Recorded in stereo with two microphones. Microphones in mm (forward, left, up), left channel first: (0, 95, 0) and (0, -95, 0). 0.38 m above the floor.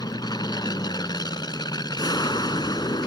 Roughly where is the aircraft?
Left.